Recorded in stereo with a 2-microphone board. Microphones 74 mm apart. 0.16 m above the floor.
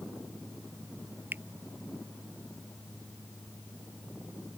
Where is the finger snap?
25° right (ahead or behind).